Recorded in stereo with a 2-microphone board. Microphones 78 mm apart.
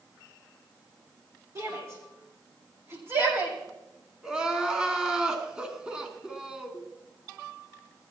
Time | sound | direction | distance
1.6 | a shout | 40° right (ahead or behind) | 6.5 m
4.2 | crying | 10° right (ahead or behind) | 1.5 m